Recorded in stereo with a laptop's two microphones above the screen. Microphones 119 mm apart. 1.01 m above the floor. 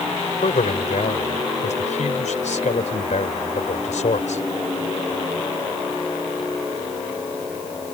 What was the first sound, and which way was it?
A man speaking, 80° left.